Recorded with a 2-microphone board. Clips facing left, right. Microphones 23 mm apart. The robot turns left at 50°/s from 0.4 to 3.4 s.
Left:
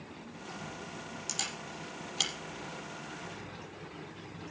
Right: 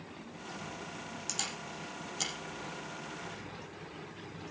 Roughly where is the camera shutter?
Centre.